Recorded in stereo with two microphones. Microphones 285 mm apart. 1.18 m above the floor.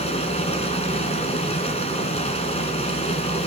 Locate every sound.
0.0 s running water: 20° left (ahead or behind), 3.5 m